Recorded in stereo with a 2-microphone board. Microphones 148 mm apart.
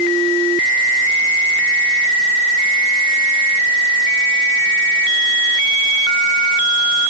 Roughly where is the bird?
I don't hear a bird.